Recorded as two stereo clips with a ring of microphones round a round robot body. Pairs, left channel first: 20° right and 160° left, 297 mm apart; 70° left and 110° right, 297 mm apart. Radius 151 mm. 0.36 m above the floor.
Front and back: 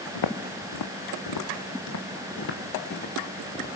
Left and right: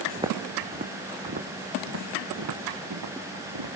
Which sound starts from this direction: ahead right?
Footsteps, at 0.1 s.